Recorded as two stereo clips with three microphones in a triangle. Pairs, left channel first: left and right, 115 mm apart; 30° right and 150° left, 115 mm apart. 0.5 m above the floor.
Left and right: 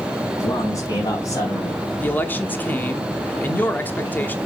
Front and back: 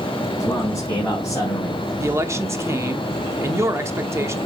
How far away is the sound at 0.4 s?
About 4 m.